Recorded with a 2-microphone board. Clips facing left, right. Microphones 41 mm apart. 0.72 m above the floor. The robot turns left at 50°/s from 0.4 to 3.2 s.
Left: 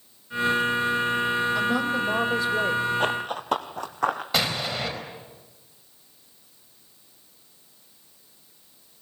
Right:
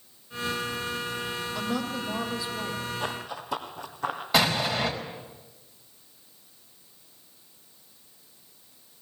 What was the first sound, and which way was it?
A woman speaking, 170° left.